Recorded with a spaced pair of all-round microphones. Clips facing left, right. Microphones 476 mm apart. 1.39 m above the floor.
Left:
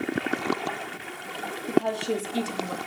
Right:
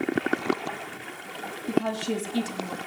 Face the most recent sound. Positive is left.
turn(degrees=-5)  # may be behind; listen again after turning